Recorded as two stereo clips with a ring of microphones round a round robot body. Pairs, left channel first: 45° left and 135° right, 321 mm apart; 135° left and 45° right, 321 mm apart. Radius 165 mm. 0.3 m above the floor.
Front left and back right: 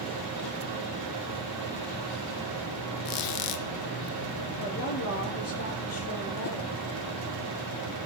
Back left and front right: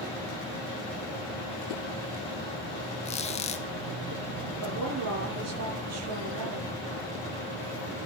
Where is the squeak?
65° left, 1.6 m.